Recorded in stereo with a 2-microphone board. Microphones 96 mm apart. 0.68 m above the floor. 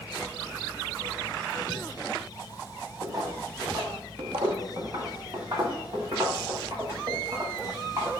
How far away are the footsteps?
About 1.0 m.